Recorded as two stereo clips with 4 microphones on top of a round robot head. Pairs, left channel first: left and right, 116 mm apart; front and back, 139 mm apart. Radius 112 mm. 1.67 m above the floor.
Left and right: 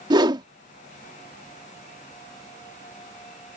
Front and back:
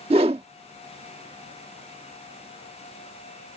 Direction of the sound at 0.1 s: 125° right.